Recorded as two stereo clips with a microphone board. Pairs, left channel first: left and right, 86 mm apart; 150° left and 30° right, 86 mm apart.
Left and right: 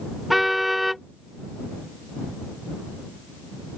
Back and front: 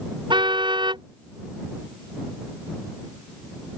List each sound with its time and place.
0.3 s a car horn: straight ahead